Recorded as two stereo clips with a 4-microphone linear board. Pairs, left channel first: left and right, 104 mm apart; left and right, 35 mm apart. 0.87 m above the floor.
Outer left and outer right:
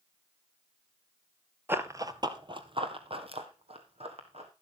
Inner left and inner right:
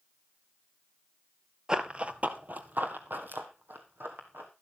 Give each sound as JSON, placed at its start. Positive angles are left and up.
{"t": 1.7, "sound": "running footsteps", "side_deg": -20, "distance_m": 0.8}